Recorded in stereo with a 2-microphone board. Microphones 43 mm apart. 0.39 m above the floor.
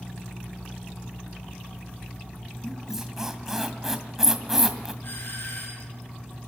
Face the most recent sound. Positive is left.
turn(degrees=55)  # may be behind; listen again after turning